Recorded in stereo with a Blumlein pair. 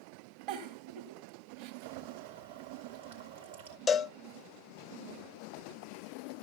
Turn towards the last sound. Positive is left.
turn(degrees=15)